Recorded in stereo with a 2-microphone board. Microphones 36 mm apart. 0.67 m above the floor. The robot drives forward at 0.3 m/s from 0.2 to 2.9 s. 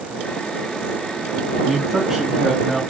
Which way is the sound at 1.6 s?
10° right (ahead or behind).